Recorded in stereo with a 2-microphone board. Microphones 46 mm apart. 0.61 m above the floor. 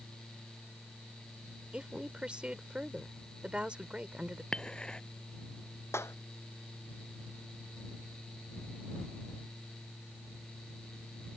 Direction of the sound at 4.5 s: 20° left (ahead or behind).